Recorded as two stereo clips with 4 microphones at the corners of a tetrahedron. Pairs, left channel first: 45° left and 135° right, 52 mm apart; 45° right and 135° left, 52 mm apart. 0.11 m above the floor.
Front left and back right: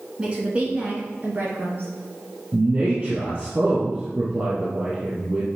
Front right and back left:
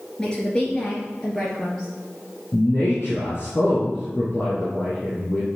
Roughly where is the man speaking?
Right.